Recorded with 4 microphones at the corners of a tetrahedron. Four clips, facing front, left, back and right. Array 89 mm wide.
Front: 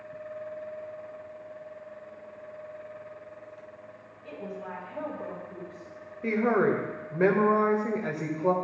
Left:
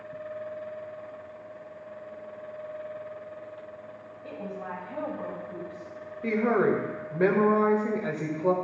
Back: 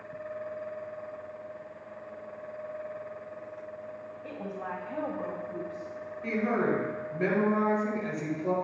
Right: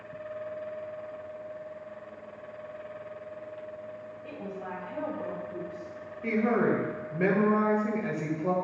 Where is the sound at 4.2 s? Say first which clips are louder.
Left 3 dB, even; 150° left, 3 m.